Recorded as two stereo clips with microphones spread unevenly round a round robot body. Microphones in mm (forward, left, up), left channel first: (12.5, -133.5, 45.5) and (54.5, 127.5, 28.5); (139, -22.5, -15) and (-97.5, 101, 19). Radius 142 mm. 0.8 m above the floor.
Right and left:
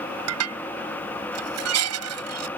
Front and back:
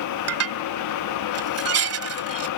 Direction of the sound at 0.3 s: 120° left.